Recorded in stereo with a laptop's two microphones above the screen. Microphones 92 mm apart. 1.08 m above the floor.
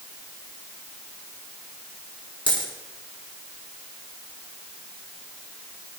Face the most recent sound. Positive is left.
turn(degrees=75)  # may be behind; listen again after turning